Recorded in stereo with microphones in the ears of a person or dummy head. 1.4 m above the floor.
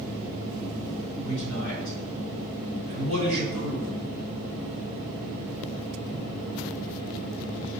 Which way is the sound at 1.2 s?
60° left (ahead or behind).